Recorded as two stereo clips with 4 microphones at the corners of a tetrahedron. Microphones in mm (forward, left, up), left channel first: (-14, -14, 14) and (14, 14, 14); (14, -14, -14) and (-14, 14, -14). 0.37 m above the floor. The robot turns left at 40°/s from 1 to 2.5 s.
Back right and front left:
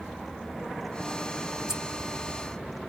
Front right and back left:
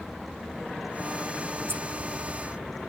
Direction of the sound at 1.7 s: 120° left.